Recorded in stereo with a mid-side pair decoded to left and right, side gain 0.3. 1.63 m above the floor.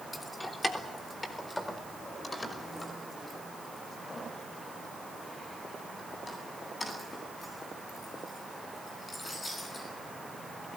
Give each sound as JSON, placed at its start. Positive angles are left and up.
{"t": 0.1, "sound": "keys jangling", "azimuth_deg": 30, "distance_m": 3.0}